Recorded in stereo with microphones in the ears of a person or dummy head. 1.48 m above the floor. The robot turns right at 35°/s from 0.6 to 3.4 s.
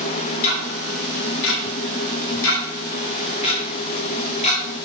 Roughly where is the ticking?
Left.